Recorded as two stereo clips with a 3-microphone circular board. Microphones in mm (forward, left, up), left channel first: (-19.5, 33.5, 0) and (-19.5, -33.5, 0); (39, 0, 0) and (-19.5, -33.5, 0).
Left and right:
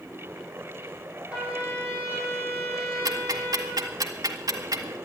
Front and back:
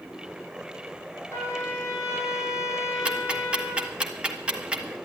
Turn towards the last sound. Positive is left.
turn(degrees=-75)